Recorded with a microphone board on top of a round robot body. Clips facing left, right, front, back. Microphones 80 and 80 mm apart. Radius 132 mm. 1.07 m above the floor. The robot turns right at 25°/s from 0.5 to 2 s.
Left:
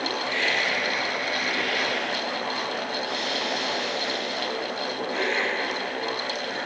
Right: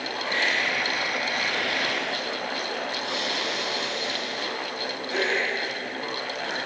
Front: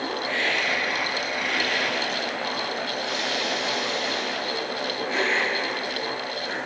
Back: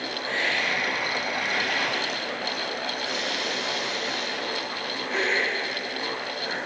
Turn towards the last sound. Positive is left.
turn(degrees=-90)